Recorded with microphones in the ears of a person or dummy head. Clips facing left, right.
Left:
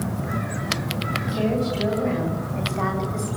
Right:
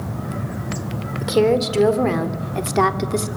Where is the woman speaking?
75° right (ahead or behind), 4.5 m; by 3.3 s 70° right (ahead or behind), 3 m.